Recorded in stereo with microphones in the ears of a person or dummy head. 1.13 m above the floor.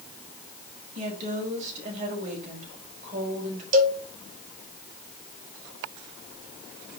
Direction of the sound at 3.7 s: 40° right (ahead or behind).